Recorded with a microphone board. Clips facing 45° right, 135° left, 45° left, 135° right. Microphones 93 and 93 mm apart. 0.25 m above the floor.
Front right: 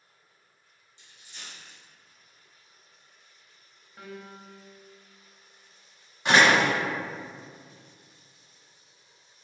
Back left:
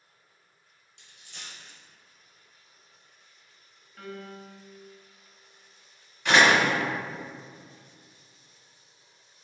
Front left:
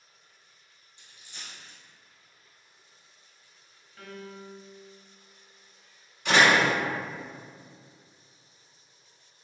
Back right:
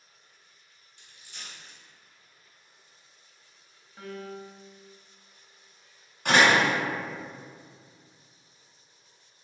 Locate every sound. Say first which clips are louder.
1.0 s a dropped coin: even, even; 115° left, 1.7 m
4.0 s a piano: back left 2 dB, back right 4 dB; 95° right, 0.7 m
6.2 s a door slam: even, even; 100° right, 1.6 m